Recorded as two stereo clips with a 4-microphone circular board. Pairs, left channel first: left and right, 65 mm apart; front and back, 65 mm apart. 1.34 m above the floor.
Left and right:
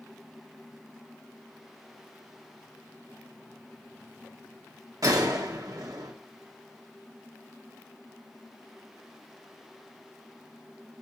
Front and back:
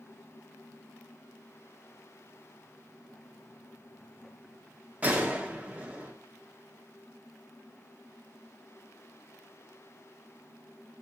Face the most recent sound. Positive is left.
turn(degrees=-110)